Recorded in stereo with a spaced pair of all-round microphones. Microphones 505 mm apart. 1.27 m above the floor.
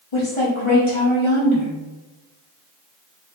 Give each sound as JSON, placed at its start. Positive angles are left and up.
{"t": 0.1, "sound": "a woman speaking", "side_deg": 75, "distance_m": 1.0}